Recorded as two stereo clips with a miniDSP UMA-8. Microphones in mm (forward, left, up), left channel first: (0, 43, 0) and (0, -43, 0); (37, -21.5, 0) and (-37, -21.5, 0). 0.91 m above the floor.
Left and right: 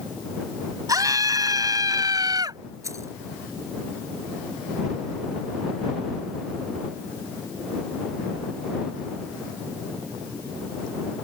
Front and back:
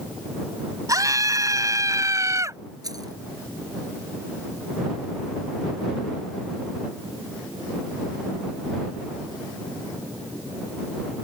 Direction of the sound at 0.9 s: 135° right.